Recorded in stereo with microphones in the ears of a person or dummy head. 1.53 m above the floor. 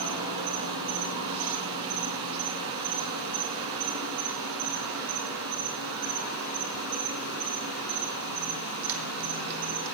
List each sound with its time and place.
0.0 s an insect: 65° right (ahead or behind), 1.6 m